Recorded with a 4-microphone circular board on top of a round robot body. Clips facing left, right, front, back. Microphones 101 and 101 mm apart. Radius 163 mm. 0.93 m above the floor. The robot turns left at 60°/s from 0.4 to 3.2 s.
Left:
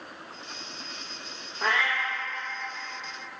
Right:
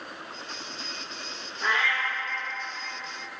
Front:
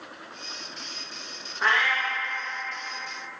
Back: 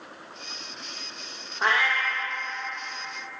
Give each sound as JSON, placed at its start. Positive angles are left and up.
{"t": 1.6, "sound": "a cat meowing", "azimuth_deg": 115, "distance_m": 0.6}